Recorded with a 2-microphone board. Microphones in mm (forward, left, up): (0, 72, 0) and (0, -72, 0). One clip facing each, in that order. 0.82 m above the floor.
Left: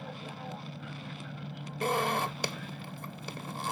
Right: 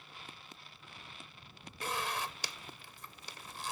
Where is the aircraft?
75° left (ahead or behind).